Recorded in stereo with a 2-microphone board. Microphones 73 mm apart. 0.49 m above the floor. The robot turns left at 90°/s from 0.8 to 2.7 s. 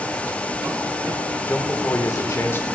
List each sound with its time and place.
1.5 s a man speaking: 145° left, 1.8 m; by 2.6 s 40° left, 1.8 m